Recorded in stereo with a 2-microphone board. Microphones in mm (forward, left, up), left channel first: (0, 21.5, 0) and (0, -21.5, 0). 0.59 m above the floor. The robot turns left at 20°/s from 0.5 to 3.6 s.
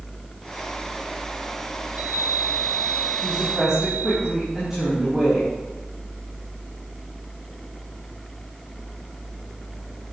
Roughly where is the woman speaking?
Centre.